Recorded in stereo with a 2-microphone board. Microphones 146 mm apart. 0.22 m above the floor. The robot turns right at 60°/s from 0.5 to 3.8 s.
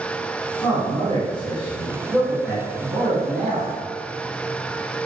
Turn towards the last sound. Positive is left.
turn(degrees=-110)